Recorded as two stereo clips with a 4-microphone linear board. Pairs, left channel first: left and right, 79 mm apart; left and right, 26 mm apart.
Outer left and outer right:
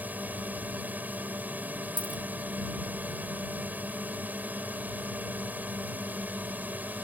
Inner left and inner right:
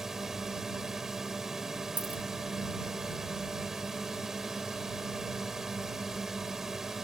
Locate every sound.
0.0 s a drone: 20° right (ahead or behind)
2.0 s a dropped coin: 80° right